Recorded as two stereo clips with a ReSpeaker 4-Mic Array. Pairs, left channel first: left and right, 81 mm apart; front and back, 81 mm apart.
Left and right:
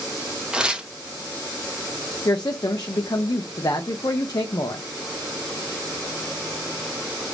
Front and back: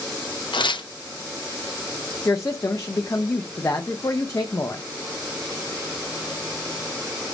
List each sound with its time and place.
0.5 s tearing paper: 10° right, 0.6 m
2.2 s a woman speaking: 55° left, 0.5 m